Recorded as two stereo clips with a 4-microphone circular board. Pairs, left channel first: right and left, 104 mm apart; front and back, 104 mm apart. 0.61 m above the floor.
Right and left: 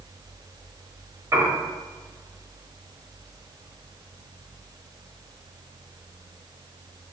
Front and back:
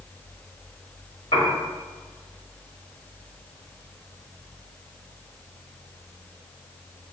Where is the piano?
30° left, 1.2 m.